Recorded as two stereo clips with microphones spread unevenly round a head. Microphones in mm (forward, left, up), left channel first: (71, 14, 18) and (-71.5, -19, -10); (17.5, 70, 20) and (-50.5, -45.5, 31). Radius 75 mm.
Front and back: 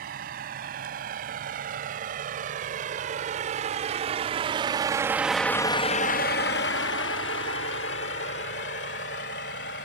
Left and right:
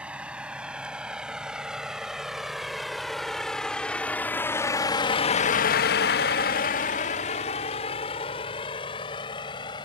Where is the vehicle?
160° left; by 9.8 s straight ahead.